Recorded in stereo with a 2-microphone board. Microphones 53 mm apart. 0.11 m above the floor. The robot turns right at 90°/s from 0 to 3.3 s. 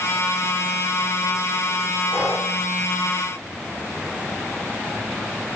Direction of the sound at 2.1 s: 30° right.